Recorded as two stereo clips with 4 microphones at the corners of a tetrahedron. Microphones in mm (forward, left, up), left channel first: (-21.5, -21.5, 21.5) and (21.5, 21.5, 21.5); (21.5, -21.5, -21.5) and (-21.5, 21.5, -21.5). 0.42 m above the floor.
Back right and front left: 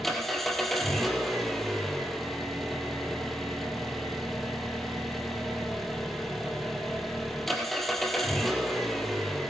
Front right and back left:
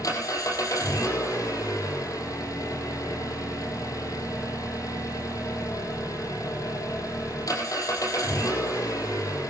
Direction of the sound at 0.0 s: 50° right.